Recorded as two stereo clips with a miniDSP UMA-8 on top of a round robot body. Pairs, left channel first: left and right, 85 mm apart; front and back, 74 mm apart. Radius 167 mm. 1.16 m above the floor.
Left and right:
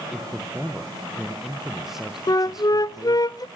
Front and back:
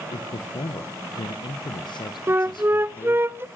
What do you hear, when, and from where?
0.1 s a man speaking: 5° right, 1.2 m
2.3 s a flute: 125° left, 0.6 m